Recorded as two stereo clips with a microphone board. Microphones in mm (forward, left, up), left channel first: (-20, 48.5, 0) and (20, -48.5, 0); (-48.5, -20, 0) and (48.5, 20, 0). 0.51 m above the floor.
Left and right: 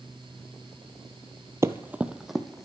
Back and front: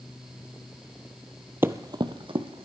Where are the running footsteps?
30° right, 0.5 m; by 2.6 s 25° left, 1.1 m.